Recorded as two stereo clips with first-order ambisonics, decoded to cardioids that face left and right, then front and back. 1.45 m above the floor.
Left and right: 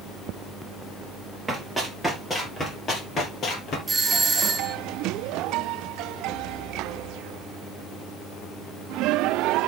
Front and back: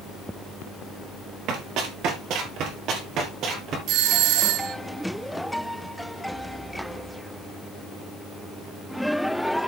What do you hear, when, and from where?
1.5 s running footsteps: 170° right, 2 m; by 3.8 s 135° left, 2.5 m
3.9 s a doorbell: 160° right, 0.7 m